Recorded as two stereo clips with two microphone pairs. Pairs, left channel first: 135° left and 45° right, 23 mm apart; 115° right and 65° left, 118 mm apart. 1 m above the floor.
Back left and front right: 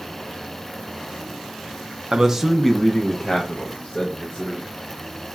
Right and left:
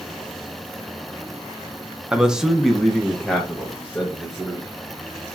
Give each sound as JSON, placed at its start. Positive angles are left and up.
{"t": 2.1, "sound": "a man speaking", "azimuth_deg": -15, "distance_m": 0.6}